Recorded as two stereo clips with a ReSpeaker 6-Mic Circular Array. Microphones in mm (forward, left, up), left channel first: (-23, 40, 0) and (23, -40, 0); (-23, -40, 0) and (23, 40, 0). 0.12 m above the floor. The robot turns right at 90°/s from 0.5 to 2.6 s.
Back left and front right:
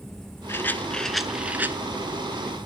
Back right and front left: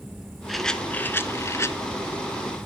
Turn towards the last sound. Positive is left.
turn(degrees=-20)